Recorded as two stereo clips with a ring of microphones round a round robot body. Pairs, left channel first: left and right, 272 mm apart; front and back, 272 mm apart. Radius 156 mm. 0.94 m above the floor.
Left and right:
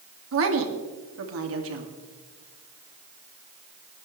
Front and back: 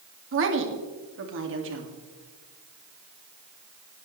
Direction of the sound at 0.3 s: 135° right.